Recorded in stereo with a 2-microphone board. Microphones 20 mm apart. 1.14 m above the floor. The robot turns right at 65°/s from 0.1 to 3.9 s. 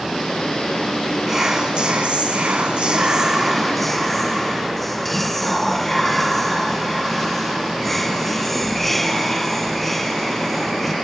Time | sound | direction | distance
1.3 | whispering | 160° right | 0.5 m